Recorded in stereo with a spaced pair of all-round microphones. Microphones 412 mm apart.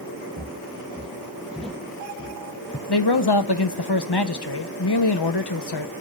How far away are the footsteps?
About 3 m.